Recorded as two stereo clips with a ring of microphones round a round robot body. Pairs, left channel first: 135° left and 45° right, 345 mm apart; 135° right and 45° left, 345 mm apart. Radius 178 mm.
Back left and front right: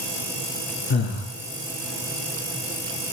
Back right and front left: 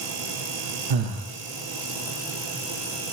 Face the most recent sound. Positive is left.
turn(degrees=75)